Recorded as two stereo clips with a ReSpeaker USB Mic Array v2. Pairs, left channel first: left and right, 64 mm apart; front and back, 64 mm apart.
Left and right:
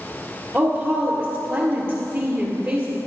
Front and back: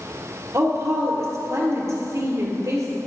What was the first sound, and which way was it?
A woman speaking, 165° right.